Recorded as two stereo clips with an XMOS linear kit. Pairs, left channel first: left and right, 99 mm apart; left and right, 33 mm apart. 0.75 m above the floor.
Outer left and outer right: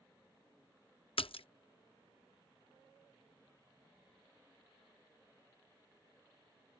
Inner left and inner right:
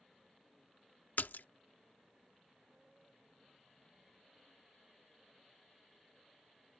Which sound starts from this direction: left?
A splash, at 1.2 s.